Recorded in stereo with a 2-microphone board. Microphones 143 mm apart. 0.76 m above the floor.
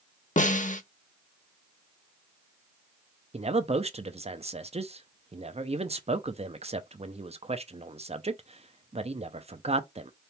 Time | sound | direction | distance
0.4 | a snare drum | 60° left (ahead or behind) | 0.7 m
3.3 | a man speaking | 45° right (ahead or behind) | 0.6 m